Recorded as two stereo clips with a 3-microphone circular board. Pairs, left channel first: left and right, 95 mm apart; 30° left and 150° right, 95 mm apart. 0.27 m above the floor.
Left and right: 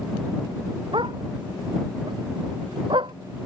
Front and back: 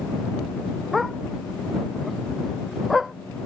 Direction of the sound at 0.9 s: 60° right.